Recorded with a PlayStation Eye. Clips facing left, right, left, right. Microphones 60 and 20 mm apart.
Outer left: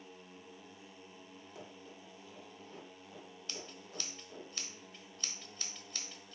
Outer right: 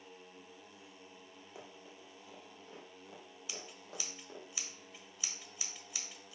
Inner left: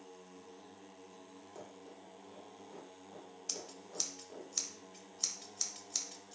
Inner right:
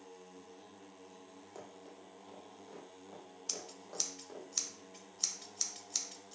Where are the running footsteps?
20° right (ahead or behind), 2.5 m; by 4.5 s 65° right (ahead or behind), 3.5 m.